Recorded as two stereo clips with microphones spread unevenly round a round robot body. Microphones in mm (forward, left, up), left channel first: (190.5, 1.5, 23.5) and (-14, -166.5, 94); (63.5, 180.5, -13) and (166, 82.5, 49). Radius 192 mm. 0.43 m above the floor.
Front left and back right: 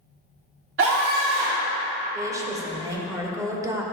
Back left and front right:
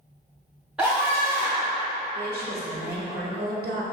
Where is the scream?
160° right, 1.2 m; by 1.8 s 140° right, 2 m.